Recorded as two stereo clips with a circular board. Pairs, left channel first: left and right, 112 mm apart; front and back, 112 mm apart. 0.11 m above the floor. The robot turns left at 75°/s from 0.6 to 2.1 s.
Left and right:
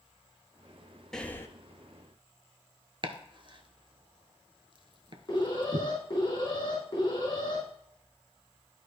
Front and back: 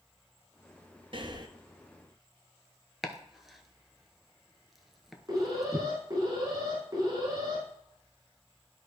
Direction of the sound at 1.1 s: 175° left.